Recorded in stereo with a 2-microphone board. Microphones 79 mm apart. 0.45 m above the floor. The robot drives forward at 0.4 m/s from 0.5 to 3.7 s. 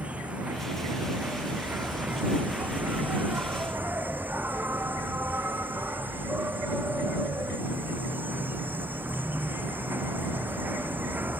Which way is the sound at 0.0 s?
15° right (ahead or behind).